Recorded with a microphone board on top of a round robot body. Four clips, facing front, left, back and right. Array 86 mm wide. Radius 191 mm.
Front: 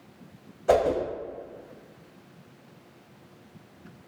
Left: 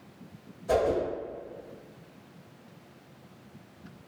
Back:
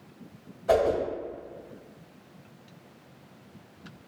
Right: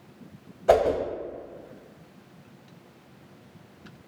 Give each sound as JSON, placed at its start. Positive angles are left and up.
{"t": 0.7, "sound": "a whoosh", "azimuth_deg": -70, "distance_m": 1.0}